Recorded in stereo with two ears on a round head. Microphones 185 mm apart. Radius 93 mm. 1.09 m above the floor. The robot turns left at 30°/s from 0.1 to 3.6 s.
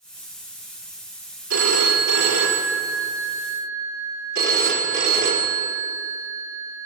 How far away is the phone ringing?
About 2.5 m.